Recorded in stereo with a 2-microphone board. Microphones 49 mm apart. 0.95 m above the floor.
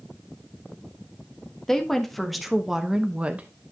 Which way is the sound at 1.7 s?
10° left (ahead or behind).